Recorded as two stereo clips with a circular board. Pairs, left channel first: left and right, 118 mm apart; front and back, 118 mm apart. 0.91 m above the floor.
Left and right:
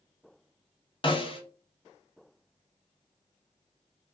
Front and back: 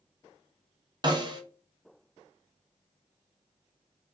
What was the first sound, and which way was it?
A snare drum, 130° left.